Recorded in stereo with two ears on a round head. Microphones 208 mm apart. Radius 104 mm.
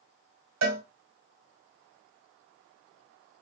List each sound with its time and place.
0.6 s a cowbell: 75° right (ahead or behind), 1.4 m